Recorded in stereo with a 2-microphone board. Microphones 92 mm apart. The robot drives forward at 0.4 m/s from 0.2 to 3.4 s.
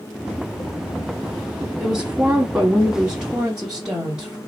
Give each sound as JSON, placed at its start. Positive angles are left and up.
{"t": 1.8, "sound": "a woman speaking", "side_deg": -10, "distance_m": 1.2}